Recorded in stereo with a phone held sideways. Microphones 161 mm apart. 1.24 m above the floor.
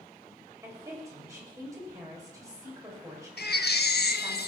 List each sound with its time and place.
0.6 s a woman speaking: 20° right (ahead or behind), 6.5 m
3.4 s a baby crying: 90° left, 1.3 m